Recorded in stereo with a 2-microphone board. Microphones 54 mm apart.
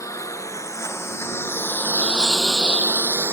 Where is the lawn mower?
75° left (ahead or behind); by 3.3 s 45° right (ahead or behind).